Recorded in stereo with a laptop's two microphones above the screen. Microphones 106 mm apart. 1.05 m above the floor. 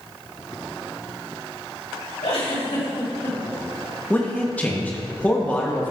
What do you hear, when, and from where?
2.2 s a giggle: 70° left (ahead or behind), 3 m
4.1 s a man speaking: 15° left (ahead or behind), 0.8 m